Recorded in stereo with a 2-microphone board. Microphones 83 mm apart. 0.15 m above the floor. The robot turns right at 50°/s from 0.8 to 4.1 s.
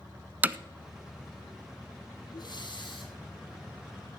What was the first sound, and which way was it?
Hammering, 20° right (ahead or behind).